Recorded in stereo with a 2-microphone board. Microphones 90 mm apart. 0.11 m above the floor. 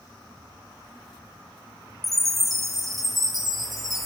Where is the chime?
Centre (ahead or behind), 2.5 m.